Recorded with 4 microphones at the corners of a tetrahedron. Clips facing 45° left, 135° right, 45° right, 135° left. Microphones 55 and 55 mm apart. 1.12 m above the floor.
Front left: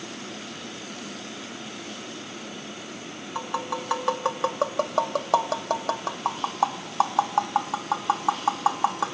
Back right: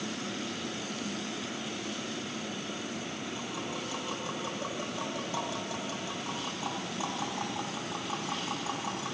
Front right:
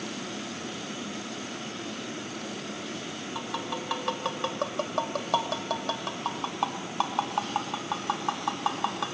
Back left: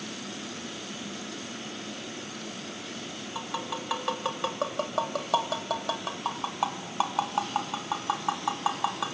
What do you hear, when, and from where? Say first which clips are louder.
3.4 s tapping: front left 7 dB, even; 50° left, 2.5 m